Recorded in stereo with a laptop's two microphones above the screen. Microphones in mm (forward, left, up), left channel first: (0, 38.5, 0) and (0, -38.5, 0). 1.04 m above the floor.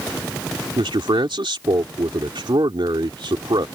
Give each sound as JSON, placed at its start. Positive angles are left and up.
{"t": 0.8, "sound": "a man speaking", "side_deg": -80}